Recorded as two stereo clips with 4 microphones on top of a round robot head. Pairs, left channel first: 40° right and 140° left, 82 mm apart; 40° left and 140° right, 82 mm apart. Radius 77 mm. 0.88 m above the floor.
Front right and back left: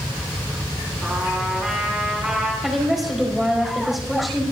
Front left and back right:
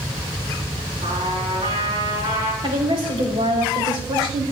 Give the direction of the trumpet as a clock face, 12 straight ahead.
5 o'clock.